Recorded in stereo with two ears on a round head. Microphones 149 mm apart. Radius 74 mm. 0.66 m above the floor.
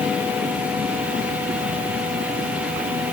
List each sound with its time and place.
Only background noise.